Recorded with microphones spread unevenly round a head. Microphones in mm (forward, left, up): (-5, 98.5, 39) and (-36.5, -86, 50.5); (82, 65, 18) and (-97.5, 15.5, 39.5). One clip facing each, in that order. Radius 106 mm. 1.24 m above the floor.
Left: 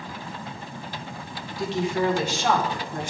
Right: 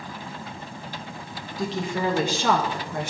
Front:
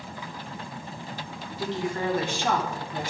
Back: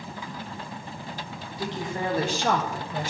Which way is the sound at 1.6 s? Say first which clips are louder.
Left 2 dB, front 2 dB; 85° right.